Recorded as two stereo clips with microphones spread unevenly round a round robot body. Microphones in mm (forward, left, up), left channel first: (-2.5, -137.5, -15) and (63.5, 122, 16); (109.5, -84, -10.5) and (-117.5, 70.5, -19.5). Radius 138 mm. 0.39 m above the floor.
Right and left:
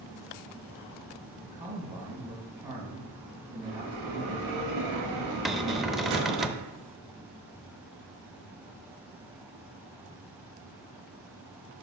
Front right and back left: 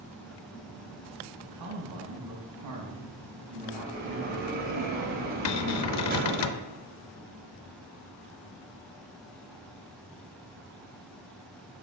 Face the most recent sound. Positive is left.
turn(degrees=-20)